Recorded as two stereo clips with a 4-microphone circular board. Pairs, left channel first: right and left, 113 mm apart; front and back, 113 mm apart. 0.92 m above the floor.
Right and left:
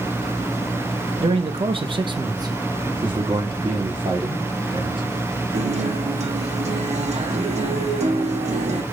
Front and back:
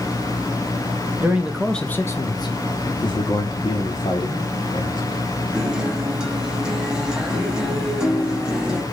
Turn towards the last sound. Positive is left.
turn(degrees=95)